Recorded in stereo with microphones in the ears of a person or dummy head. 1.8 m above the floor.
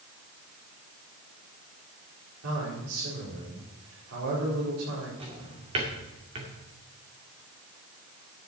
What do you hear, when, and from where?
2.4 s a man speaking: 80° right, 5 m
5.2 s a drawer: 30° right (ahead or behind), 2.5 m